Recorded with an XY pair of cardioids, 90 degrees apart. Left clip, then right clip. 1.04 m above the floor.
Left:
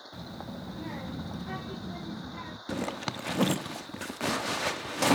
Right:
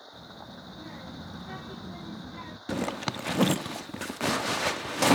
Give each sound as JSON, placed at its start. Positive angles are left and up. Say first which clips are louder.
{"t": 0.1, "sound": "a child speaking", "louder": "left 5 dB", "azimuth_deg": 55, "distance_m": 1.7}
{"t": 2.7, "sound": "a zipper", "louder": "right 3 dB", "azimuth_deg": -25, "distance_m": 1.0}